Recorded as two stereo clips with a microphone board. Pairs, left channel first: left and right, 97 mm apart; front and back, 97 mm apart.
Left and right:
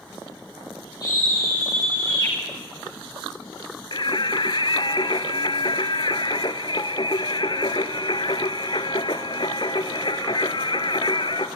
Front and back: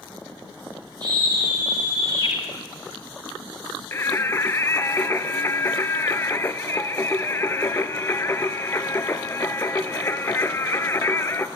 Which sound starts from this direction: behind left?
A scream, at 1.0 s.